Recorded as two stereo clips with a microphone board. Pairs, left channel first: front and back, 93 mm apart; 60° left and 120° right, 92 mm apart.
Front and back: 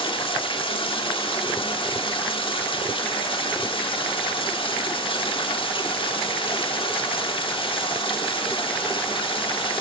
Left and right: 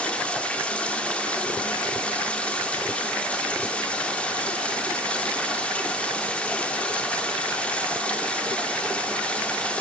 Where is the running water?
15° right, 1.3 m.